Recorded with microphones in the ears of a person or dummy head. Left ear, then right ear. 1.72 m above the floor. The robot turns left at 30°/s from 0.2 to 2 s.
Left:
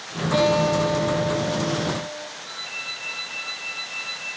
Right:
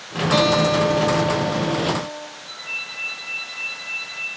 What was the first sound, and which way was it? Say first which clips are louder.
A guitar: right 2 dB; 55° right.